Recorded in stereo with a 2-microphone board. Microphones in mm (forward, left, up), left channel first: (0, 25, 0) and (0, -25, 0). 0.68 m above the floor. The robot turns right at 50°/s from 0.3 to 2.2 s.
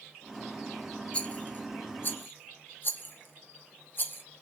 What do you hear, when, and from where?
1.1 s a rattle: 20° left (ahead or behind), 0.6 m; by 4.2 s 45° left (ahead or behind), 0.6 m